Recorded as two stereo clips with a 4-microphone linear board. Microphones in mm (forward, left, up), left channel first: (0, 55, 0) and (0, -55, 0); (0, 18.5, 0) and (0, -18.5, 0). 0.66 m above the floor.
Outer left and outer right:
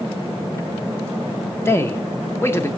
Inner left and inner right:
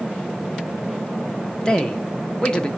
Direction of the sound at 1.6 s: 25° left (ahead or behind).